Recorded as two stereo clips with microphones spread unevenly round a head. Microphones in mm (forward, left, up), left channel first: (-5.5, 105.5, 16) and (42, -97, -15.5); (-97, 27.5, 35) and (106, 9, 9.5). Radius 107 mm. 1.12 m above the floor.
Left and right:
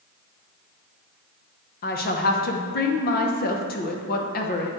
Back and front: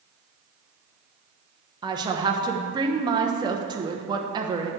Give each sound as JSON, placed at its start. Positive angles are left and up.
{"t": 1.8, "sound": "a woman speaking", "azimuth_deg": 55, "distance_m": 0.9}